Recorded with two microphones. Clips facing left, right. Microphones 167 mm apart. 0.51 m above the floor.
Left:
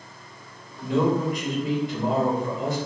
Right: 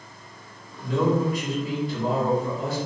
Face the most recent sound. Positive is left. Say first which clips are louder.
# even
turn(degrees=20)  # may be behind; listen again after turning